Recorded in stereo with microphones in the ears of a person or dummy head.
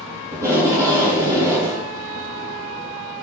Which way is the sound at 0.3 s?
20° right (ahead or behind).